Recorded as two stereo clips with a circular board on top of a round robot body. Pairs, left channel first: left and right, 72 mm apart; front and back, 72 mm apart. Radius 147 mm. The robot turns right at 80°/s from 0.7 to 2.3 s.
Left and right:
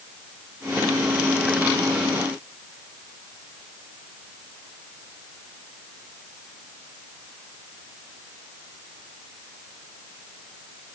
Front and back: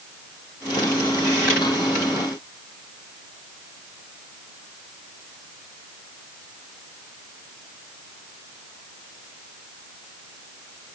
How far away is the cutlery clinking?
I don't hear cutlery clinking.